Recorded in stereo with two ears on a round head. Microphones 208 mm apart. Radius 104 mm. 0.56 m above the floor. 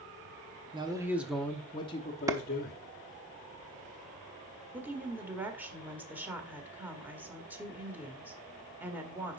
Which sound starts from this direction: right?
A man speaking, at 0.7 s.